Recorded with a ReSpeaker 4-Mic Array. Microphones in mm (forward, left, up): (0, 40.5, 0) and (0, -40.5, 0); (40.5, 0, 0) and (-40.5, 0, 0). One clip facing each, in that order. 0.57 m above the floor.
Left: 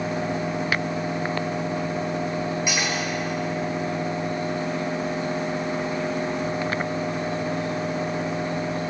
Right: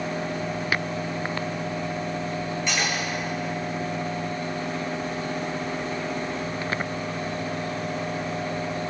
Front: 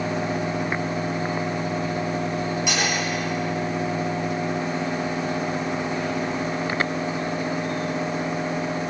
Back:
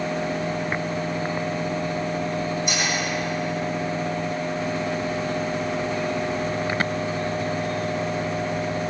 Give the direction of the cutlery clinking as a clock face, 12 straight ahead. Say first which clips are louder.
Left 1 dB, front 1 dB; 12 o'clock.